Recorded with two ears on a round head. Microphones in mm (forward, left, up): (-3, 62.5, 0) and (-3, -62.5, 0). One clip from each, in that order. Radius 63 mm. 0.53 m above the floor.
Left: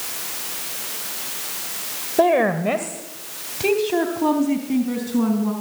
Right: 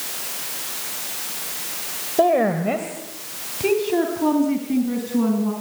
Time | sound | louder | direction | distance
2.2 | a woman speaking | left 1 dB | 55° left (ahead or behind) | 2 m